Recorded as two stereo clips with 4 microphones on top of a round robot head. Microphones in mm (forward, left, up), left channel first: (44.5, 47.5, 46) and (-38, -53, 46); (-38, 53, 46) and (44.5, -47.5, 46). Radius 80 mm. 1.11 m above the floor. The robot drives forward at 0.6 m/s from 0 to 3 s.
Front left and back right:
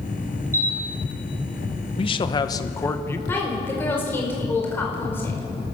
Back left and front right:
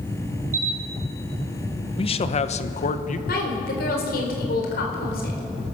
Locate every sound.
0.5 s a camera shutter: 60° right, 1.9 m; by 0.8 s 65° right, 1.8 m
2.0 s a man speaking: 90° left, 1.1 m; by 3.2 s 125° left, 1.3 m
3.3 s a woman speaking: 125° left, 4.5 m